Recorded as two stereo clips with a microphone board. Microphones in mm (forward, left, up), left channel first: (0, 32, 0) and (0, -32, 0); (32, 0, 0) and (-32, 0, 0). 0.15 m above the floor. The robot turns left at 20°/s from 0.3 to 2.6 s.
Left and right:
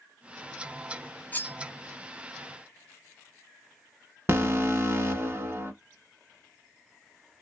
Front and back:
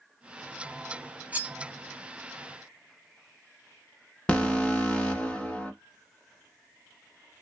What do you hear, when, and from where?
1.3 s cutlery clinking: 130° left, 0.7 m; by 1.6 s 125° left, 0.7 m
4.3 s an alarm: 60° right, 0.9 m